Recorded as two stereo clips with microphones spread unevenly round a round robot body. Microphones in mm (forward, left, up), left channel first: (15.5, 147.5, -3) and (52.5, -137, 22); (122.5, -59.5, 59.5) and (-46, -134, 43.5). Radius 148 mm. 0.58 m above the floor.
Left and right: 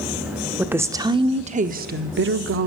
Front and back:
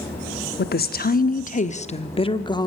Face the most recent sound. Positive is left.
turn(degrees=-45)